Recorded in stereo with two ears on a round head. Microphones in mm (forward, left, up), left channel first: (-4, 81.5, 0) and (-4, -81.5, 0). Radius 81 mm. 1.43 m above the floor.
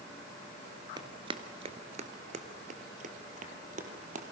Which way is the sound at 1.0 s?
25° right (ahead or behind).